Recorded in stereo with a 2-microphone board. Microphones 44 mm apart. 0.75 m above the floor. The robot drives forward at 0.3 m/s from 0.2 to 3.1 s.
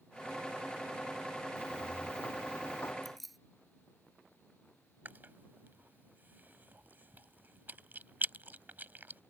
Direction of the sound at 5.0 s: 45° right (ahead or behind).